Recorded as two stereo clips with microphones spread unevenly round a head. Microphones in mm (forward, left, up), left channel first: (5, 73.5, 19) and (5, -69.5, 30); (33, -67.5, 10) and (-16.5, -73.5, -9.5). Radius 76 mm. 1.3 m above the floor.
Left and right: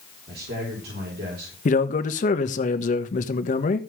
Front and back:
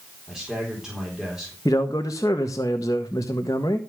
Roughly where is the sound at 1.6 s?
Ahead left.